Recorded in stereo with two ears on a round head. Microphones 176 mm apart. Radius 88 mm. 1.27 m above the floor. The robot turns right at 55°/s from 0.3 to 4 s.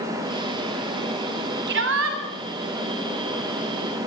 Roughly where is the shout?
Right.